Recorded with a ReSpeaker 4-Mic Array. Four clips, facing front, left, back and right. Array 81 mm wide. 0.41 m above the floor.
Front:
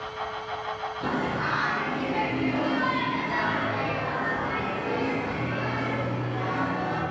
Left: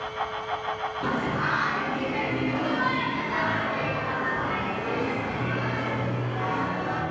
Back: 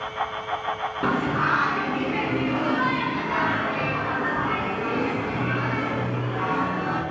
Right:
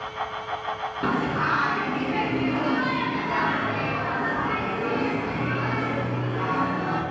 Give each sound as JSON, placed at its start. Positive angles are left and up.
{"t": 1.0, "sound": "singing", "azimuth_deg": -160, "distance_m": 0.5}